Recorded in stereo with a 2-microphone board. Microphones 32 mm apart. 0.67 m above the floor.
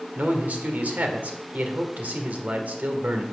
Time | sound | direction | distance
0.1 | a man speaking | 60° right (ahead or behind) | 1.6 m